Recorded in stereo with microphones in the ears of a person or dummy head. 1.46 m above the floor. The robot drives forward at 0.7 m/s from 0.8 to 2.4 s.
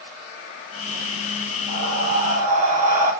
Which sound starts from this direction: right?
Breathing, at 1.7 s.